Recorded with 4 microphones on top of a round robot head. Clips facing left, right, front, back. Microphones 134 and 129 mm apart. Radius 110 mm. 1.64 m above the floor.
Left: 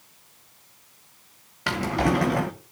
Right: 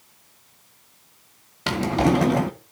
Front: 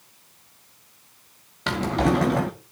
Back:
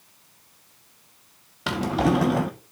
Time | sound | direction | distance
1.7 | a drawer | 105° right | 0.7 m